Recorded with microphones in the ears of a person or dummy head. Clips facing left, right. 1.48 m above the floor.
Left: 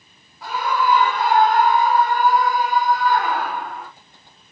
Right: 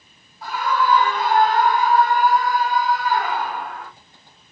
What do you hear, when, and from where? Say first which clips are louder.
0.4 s a scream: even; 75° left (ahead or behind), 1.8 m; by 3.9 s 55° left (ahead or behind), 2.5 m